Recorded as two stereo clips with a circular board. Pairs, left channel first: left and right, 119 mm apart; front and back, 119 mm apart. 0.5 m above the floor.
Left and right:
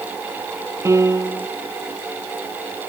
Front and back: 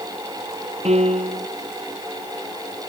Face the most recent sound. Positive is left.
turn(degrees=-155)